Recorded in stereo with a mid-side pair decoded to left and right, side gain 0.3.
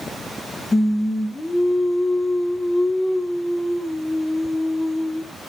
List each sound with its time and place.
0.7 s singing: 35° left, 1.0 m